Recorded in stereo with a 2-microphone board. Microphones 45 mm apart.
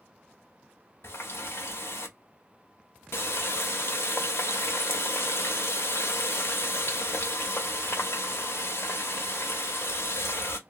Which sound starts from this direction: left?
A running tap, at 1.0 s.